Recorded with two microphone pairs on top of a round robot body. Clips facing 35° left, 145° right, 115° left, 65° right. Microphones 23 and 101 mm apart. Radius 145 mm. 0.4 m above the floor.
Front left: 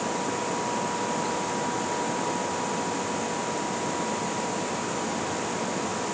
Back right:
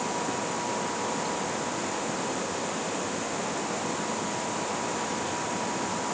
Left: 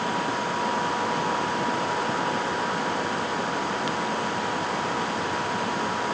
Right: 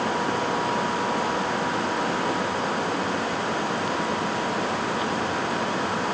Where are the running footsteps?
No running footsteps in this recording.